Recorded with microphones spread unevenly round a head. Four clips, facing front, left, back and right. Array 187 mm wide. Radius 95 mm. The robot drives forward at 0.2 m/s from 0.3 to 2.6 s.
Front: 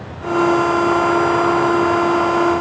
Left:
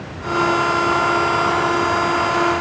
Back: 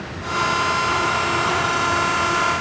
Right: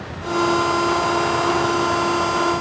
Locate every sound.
Only background noise.